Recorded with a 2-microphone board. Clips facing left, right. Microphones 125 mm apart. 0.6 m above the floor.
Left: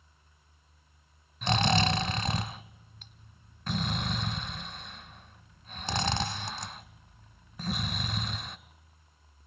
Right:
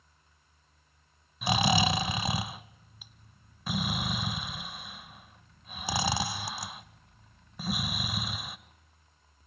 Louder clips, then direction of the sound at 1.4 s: Even; 10° right (ahead or behind).